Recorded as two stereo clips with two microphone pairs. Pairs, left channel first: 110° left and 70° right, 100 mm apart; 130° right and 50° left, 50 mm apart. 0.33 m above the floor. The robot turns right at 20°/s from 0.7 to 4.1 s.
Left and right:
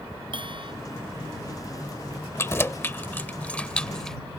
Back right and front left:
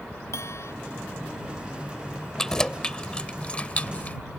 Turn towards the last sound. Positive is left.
turn(degrees=-170)